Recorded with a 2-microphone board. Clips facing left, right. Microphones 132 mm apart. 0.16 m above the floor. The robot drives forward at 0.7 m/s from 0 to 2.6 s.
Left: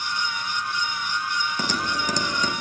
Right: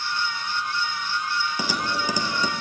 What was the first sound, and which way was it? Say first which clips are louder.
Typing on a keyboard: even; 5° right (ahead or behind).